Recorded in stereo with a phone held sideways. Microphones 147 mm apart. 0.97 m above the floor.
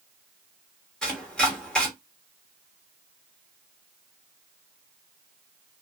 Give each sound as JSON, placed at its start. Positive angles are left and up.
{"t": 1.0, "sound": "chopping", "side_deg": 5, "distance_m": 1.4}